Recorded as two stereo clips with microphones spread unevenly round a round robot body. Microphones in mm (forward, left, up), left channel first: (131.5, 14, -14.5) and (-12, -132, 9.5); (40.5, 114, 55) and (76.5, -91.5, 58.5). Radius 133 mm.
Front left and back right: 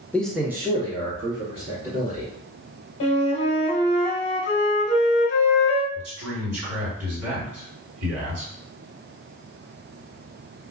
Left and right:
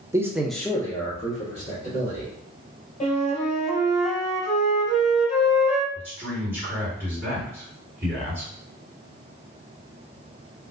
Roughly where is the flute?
Ahead left.